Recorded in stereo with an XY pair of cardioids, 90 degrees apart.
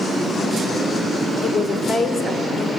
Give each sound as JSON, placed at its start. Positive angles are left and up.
{"t": 1.4, "sound": "a woman speaking", "azimuth_deg": 60, "distance_m": 2.5}